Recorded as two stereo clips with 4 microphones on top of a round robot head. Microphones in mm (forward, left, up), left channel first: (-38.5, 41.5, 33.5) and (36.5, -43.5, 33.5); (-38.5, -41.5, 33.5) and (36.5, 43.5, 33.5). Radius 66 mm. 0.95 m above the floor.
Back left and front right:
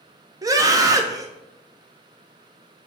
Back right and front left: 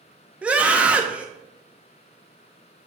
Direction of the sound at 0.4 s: 20° right.